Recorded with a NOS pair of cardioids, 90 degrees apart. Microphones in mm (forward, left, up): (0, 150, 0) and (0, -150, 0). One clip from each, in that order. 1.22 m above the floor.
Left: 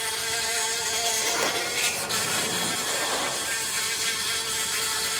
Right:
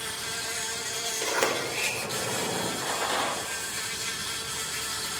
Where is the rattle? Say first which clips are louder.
Left 1 dB; 25° right, 9 m.